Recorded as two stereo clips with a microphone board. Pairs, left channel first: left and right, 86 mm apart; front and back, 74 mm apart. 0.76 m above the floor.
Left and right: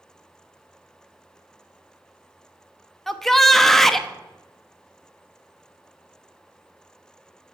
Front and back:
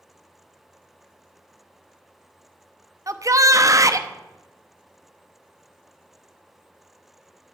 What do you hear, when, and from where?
3.1 s a shout: 175° left, 0.9 m